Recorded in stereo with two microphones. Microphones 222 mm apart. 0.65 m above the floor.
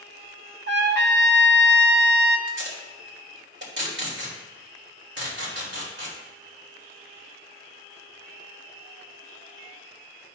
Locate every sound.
0.7 s a trumpet: 50° right (ahead or behind), 1.0 m
2.5 s tape being pulled: 50° right (ahead or behind), 2.5 m